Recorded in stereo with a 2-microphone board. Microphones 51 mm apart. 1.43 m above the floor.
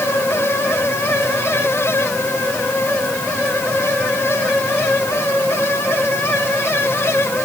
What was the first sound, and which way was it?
Only background noise.